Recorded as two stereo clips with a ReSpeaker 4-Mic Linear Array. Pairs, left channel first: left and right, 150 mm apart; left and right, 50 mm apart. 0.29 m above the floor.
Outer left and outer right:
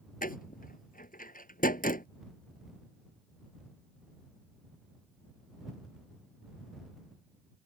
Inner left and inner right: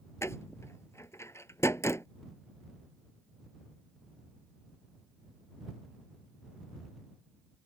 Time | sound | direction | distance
0.2 | a door slam | 70° left (ahead or behind) | ?